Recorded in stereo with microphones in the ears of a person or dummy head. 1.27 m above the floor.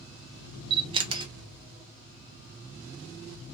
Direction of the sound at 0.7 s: 25° right (ahead or behind).